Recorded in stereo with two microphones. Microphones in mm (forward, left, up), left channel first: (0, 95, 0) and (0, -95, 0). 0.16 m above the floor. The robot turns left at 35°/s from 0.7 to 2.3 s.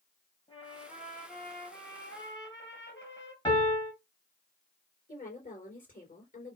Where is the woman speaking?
40° left (ahead or behind), 3 m.